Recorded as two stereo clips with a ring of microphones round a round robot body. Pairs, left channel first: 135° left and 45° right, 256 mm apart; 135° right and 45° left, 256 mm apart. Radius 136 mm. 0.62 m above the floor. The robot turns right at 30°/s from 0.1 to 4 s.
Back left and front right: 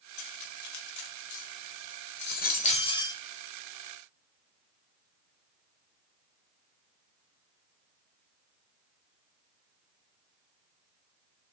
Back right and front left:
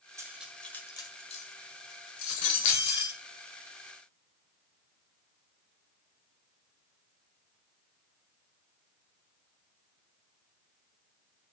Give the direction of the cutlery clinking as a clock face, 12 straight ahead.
8 o'clock.